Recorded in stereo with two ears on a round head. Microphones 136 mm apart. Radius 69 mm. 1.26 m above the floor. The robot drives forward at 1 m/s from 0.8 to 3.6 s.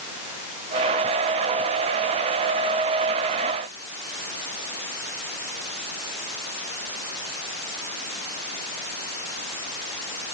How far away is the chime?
I don't hear a chime.